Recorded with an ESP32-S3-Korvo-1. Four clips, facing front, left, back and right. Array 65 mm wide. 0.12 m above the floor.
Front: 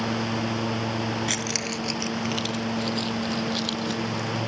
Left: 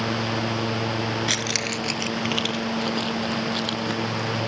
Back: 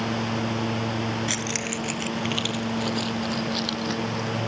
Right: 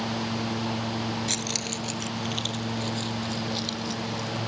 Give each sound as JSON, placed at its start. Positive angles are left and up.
{"t": 1.3, "sound": "keys jangling", "azimuth_deg": 90}